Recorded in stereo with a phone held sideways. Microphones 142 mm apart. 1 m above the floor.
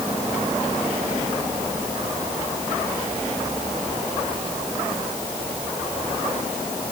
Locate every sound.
Only background noise.